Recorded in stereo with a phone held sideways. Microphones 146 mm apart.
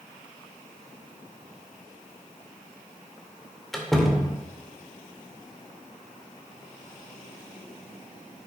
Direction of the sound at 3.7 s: Centre (ahead or behind).